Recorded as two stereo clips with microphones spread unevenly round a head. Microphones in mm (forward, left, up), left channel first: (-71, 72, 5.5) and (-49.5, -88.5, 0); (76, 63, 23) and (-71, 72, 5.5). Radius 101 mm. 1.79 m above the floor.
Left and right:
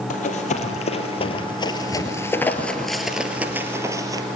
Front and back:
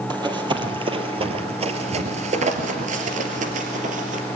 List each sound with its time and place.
0.1 s running footsteps: 120° left, 3.5 m; by 4.2 s 145° right, 3 m